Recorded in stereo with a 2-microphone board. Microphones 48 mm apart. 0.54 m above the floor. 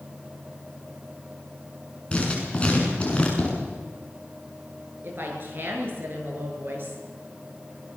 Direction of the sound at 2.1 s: 20° left (ahead or behind).